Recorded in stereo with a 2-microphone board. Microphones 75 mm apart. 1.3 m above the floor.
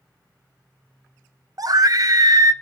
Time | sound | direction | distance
1.6 | a scream | 55° right (ahead or behind) | 0.8 m